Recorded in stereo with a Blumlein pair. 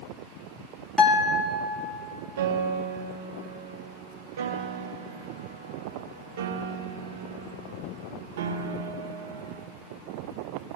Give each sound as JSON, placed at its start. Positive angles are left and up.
{"t": 1.0, "sound": "a guitar", "azimuth_deg": 15, "distance_m": 2.0}
{"t": 2.4, "sound": "a piano", "azimuth_deg": -60, "distance_m": 1.1}